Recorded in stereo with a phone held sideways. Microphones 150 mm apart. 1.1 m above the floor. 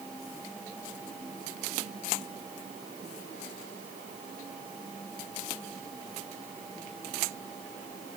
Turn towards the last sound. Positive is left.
No sound to turn to.